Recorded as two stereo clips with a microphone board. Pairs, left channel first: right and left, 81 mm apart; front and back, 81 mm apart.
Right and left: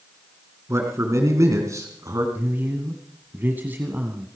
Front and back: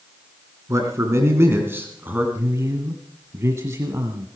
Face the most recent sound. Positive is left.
turn(degrees=145)